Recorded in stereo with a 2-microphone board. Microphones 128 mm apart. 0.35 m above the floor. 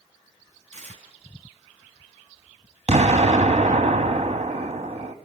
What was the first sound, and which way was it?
Tearing paper, 70° right (ahead or behind).